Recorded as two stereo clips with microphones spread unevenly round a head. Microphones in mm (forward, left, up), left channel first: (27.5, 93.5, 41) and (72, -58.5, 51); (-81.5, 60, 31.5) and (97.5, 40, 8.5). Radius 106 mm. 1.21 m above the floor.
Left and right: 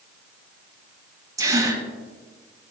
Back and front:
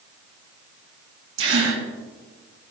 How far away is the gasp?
About 2.5 m.